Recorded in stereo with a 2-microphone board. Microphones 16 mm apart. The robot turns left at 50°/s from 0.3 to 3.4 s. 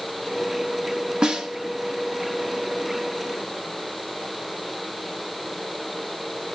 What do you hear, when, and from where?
1.2 s a snare drum: 85° right, 1.0 m; by 1.5 s 75° right (ahead or behind), 1.0 m